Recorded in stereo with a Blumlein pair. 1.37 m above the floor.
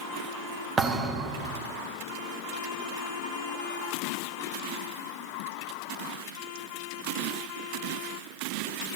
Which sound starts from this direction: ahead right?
A thud, at 0.8 s.